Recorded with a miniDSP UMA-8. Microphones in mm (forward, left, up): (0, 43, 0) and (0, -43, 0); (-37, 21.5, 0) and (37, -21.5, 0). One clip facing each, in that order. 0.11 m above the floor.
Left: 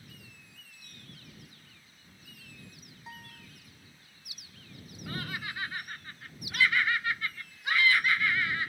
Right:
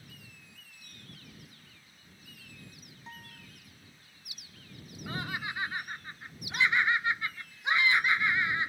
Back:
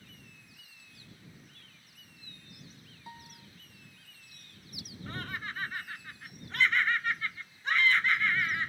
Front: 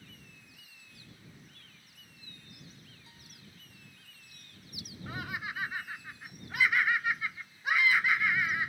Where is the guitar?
175° left.